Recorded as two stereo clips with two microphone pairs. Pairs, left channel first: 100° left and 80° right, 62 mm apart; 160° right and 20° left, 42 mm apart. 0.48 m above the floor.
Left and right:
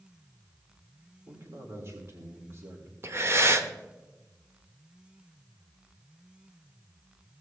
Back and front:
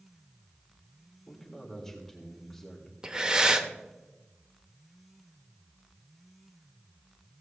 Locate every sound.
1.3 s a man speaking: 80° right, 1.8 m
3.0 s breathing: 45° right, 0.8 m